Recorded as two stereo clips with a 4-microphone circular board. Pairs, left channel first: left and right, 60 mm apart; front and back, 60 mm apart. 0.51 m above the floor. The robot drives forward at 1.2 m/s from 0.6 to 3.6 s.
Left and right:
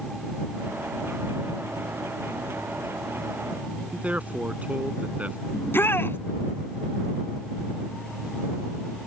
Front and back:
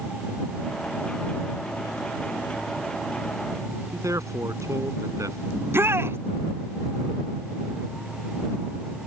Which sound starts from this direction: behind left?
A shout, at 5.5 s.